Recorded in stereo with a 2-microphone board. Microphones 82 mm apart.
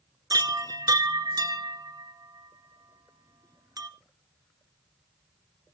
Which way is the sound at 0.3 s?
55° right (ahead or behind).